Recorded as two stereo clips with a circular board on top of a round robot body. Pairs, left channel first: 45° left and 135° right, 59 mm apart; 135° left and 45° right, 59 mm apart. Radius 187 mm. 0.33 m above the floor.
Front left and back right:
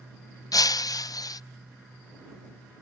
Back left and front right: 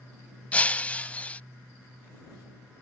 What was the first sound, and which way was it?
Breaking glass, 65° left.